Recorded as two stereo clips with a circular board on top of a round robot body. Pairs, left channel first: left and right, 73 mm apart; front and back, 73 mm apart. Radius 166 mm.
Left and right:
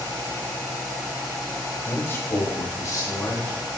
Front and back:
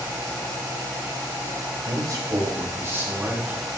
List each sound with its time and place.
1.9 s a man speaking: 155° left, 2 m; by 3.5 s 115° left, 2.5 m